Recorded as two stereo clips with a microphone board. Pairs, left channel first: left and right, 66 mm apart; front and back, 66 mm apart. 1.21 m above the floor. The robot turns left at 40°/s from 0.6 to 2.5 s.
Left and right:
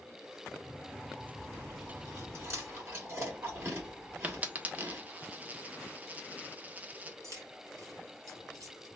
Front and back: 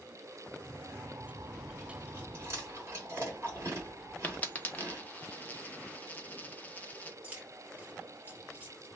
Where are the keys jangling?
110° right, 1.4 m.